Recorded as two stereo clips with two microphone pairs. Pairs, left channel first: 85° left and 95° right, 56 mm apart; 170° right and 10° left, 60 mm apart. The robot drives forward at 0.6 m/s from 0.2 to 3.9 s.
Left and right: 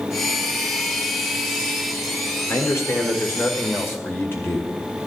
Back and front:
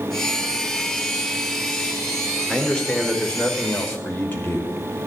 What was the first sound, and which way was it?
A man speaking, 110° left.